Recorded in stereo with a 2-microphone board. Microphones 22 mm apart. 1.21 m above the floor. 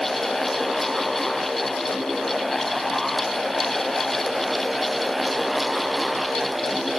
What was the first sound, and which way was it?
Only background noise.